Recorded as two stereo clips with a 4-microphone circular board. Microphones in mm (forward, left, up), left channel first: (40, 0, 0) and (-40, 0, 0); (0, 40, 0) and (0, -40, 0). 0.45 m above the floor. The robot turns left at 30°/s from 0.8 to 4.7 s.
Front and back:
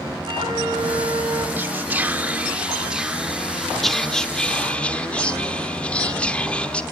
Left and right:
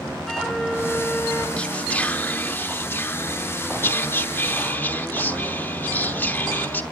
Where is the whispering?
150° left, 0.9 m; by 6.8 s 55° left, 0.9 m.